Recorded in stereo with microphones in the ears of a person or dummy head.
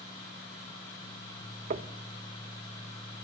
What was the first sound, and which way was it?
Knocking, 35° right (ahead or behind).